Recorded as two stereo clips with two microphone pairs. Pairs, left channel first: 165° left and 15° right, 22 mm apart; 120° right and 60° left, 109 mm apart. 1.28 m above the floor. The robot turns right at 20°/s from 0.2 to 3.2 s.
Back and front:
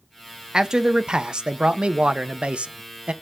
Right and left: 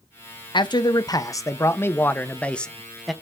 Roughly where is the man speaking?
Right.